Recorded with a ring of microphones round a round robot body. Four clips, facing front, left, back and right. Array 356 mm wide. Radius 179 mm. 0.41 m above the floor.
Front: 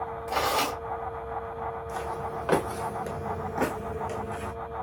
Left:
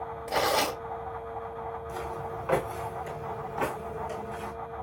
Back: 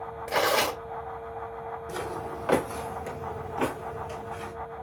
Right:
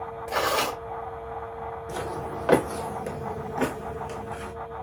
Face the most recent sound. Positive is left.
turn(degrees=-30)